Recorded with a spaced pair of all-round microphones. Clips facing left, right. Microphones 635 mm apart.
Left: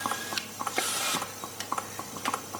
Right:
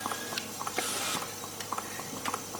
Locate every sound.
Only background noise.